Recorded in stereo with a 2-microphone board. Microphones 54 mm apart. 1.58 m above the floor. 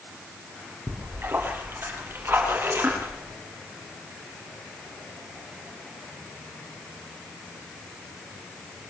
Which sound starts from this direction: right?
A splash, at 0.9 s.